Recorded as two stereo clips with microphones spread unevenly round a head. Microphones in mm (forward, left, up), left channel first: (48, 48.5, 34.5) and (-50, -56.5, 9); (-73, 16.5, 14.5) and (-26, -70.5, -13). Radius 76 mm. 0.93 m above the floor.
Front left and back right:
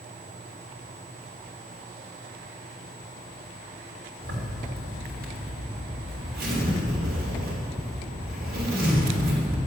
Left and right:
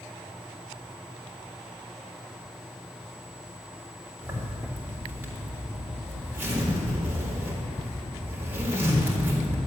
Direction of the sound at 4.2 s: 130° right.